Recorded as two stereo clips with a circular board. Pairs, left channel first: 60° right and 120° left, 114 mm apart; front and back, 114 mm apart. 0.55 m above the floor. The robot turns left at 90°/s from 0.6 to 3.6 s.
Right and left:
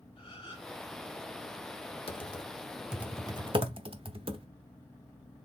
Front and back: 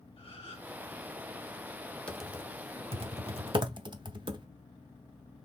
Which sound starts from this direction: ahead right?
A gasp, at 0.2 s.